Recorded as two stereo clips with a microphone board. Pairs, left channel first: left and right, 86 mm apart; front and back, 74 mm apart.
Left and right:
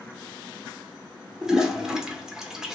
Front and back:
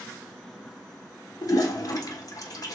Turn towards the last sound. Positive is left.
turn(degrees=-10)